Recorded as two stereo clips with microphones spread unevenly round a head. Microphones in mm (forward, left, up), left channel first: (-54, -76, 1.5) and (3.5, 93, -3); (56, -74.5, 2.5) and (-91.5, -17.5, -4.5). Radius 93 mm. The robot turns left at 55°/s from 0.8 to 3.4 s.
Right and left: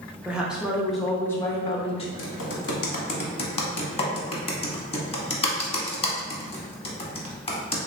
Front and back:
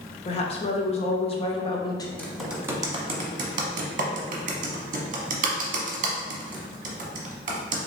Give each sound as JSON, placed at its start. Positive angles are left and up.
{"t": 0.2, "sound": "a woman speaking", "azimuth_deg": -10, "distance_m": 0.5}
{"t": 2.2, "sound": "typing on a keyboard", "azimuth_deg": -100, "distance_m": 0.8}